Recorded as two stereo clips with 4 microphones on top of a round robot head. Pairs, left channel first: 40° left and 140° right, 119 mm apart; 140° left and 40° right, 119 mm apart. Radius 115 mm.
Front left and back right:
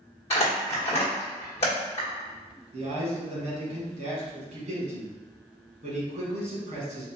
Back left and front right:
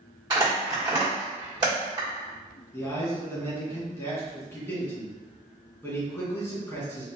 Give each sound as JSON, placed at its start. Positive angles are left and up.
{"t": 0.3, "sound": "crumpling", "azimuth_deg": 10, "distance_m": 1.2}
{"t": 2.7, "sound": "a man speaking", "azimuth_deg": -150, "distance_m": 2.0}